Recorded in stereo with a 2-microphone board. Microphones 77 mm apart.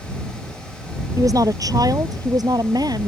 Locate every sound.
1.2 s a woman speaking: 50° right (ahead or behind); by 3.1 s 60° right (ahead or behind)